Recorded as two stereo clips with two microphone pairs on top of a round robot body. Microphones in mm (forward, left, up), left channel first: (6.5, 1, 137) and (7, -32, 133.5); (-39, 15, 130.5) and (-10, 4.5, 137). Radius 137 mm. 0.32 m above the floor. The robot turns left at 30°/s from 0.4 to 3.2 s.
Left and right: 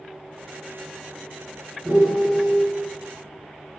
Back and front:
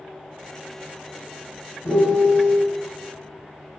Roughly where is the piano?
Behind.